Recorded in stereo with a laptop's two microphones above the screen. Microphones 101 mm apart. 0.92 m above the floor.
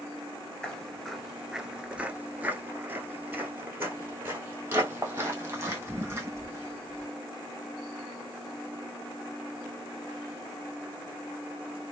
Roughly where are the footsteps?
Centre.